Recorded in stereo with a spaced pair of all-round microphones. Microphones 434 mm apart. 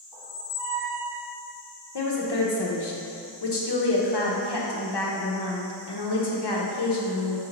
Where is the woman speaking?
65° left (ahead or behind), 0.7 m.